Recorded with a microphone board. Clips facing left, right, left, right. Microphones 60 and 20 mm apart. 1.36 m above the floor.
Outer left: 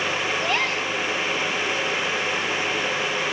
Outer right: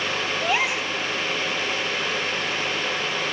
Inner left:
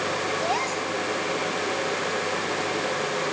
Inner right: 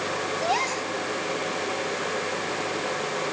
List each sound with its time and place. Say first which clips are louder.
0.4 s a gasp: even, even; 10° right (ahead or behind), 1.2 m